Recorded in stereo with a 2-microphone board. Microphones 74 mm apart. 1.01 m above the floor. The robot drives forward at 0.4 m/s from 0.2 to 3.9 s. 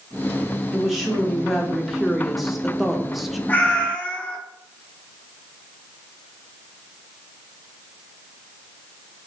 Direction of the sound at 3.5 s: 20° left (ahead or behind).